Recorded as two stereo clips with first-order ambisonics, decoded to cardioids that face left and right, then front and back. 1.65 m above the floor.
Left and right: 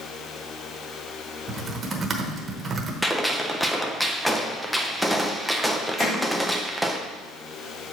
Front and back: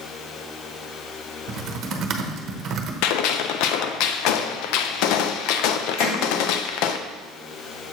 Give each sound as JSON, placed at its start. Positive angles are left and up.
{"t": 1.5, "sound": "typing on a keyboard", "azimuth_deg": -150, "distance_m": 0.9}
{"t": 3.0, "sound": "a gunshot", "azimuth_deg": 0, "distance_m": 0.5}
{"t": 6.0, "sound": "hammering", "azimuth_deg": 20, "distance_m": 4.0}